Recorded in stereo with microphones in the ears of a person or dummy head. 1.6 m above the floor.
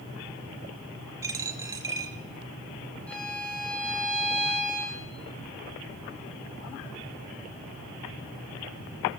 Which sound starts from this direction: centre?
A violin, at 3.1 s.